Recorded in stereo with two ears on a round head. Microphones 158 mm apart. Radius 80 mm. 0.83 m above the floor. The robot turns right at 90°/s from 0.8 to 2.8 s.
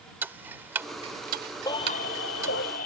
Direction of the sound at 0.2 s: 10° right (ahead or behind).